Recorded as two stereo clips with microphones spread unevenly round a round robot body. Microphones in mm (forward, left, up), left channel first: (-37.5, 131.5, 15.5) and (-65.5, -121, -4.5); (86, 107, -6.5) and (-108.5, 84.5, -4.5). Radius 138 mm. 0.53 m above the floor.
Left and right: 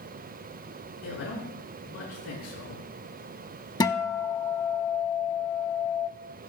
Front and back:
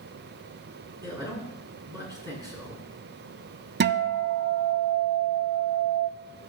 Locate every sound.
1.0 s a man speaking: 120° left, 6 m
3.8 s a guitar: 155° left, 0.7 m